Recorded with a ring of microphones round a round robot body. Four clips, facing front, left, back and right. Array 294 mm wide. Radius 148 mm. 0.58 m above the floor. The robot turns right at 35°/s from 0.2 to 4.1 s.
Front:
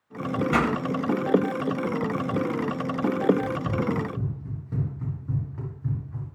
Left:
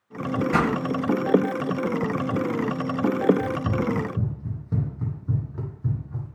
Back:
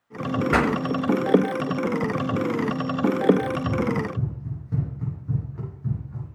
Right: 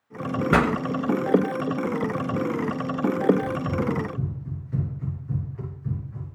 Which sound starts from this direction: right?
A pop, at 0.5 s.